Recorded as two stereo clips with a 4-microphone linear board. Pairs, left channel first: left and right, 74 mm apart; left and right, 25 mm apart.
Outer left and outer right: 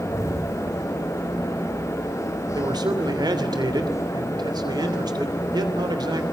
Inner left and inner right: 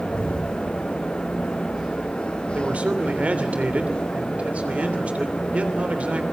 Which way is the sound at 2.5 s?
70° right (ahead or behind).